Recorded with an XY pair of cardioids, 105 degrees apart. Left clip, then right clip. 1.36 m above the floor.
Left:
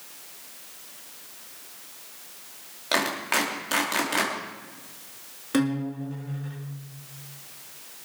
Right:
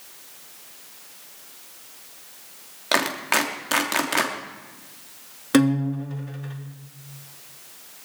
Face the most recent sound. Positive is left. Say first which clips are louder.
# right 6 dB
turn(degrees=-55)